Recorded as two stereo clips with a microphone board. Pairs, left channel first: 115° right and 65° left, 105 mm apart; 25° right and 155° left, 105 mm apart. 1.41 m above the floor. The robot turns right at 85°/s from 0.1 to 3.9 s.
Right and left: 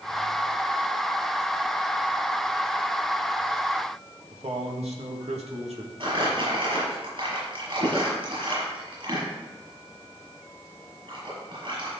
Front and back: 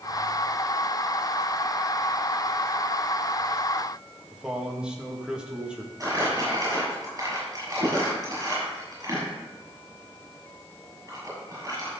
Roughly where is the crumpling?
Left.